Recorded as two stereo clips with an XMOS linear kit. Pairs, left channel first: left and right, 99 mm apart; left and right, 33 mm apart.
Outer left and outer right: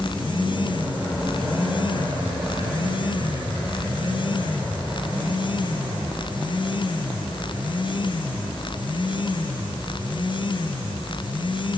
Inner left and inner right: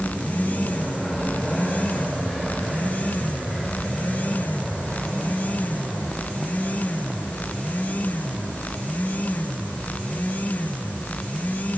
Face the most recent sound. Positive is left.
No sound to turn to.